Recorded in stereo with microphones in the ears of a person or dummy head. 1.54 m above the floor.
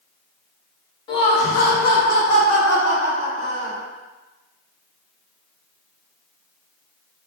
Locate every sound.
1.1 s laughter: 25° left (ahead or behind), 0.5 m; by 3.8 s 80° left, 1.6 m